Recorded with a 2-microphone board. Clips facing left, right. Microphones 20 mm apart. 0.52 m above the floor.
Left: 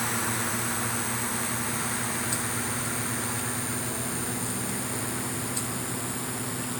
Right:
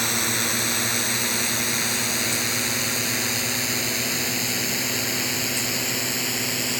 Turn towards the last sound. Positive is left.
turn(degrees=-75)  # may be behind; listen again after turning